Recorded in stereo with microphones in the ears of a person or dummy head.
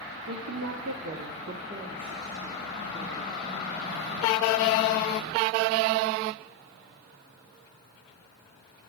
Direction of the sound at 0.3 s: 80° right.